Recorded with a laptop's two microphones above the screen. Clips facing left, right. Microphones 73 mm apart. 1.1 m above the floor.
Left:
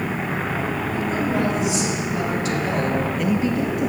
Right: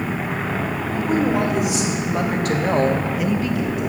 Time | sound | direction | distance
0.9 | a woman speaking | 70° right (ahead or behind) | 3.5 m